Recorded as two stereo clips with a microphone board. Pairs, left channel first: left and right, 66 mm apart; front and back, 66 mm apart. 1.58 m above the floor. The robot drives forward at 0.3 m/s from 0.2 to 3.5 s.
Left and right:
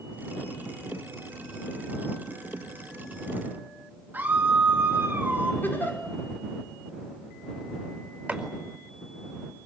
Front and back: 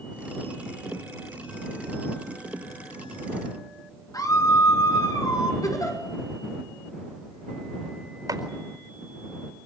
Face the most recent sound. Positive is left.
turn(degrees=-155)